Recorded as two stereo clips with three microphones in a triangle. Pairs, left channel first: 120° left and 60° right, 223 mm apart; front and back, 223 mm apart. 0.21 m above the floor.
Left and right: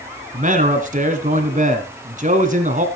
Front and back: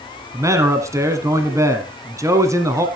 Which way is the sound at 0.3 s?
105° right.